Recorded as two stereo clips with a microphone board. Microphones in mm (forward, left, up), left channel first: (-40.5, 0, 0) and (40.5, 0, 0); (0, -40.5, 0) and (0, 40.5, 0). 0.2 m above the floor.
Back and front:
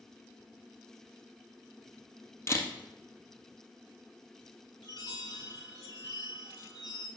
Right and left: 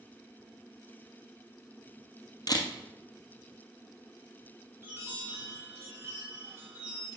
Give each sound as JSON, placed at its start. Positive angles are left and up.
{"t": 2.5, "sound": "a camera shutter", "azimuth_deg": -125, "distance_m": 1.7}
{"t": 4.8, "sound": "a chime", "azimuth_deg": 155, "distance_m": 3.0}